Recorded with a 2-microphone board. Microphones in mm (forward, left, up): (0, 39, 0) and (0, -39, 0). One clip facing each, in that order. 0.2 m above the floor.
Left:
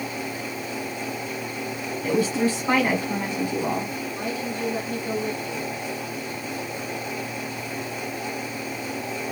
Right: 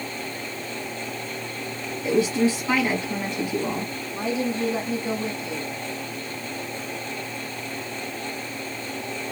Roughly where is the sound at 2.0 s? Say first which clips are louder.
Right 2 dB; left.